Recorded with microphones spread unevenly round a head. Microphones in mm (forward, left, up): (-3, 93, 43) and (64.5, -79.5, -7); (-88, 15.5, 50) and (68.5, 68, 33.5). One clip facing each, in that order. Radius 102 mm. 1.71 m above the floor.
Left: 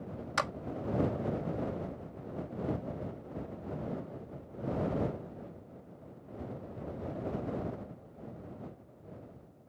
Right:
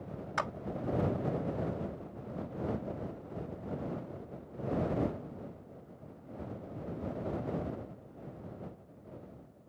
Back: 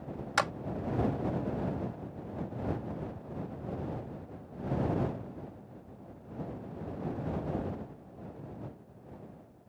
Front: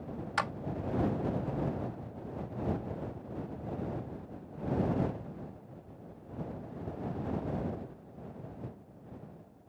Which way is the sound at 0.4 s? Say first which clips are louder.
Left 1 dB, back 4 dB; 160° left.